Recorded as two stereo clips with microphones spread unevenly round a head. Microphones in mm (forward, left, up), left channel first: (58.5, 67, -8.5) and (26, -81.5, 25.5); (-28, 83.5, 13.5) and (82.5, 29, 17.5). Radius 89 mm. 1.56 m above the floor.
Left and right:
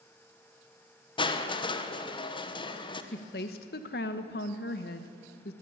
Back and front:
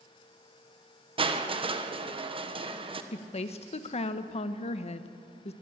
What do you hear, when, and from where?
1.2 s crushing: 20° left, 1.4 m
3.1 s a woman speaking: 120° left, 1.1 m